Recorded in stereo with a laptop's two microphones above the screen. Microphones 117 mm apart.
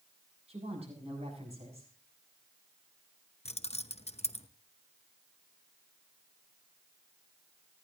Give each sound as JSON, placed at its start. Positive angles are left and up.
{"t": 0.5, "sound": "a woman speaking", "side_deg": -60, "distance_m": 7.5}
{"t": 3.5, "sound": "keys jangling", "side_deg": 65, "distance_m": 0.8}